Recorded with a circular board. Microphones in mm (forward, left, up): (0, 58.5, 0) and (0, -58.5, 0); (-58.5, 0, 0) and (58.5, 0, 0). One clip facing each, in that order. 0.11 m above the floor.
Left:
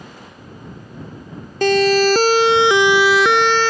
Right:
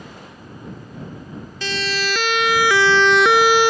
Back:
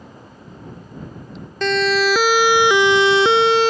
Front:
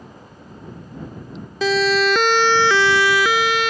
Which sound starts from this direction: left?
A siren, at 1.6 s.